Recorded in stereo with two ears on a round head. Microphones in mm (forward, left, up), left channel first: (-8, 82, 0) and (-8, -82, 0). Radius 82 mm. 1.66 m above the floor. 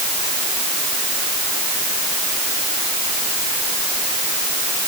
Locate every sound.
Only background noise.